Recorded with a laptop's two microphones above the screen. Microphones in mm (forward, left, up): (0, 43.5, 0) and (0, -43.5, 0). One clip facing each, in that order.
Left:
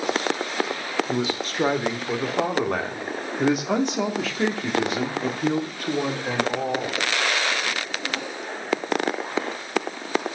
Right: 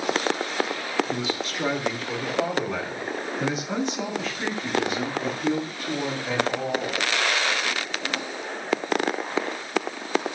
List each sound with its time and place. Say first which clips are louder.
1.1 s a man speaking: left 2 dB; 40° left (ahead or behind), 3 m; by 6.9 s 55° left (ahead or behind), 2.5 m